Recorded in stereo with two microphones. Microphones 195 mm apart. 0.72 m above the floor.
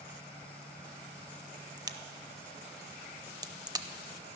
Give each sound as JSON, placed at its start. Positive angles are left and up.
{"t": 1.8, "sound": "a crack", "side_deg": -20, "distance_m": 0.6}